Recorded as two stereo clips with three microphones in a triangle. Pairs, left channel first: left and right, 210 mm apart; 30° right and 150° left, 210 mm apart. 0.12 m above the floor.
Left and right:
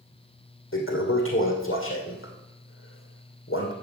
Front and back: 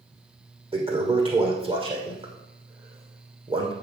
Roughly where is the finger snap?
No finger snap in this recording.